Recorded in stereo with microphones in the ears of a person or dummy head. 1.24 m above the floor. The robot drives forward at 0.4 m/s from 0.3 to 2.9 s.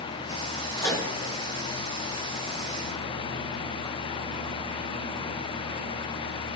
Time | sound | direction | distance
0.8 | a microwave | 25° left (ahead or behind) | 2 m